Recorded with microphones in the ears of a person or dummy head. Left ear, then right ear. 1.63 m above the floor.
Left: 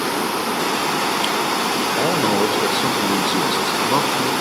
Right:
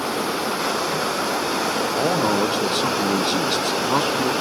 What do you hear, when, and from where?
2.0 s a man speaking: 5° right (ahead or behind), 0.5 m